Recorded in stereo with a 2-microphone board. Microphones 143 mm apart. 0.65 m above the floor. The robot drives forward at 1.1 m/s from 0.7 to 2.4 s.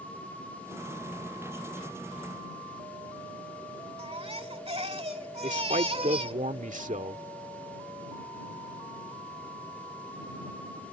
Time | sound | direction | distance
4.0 | a baby crying | 45° right (ahead or behind) | ?
5.4 | a man speaking | 60° right (ahead or behind) | ?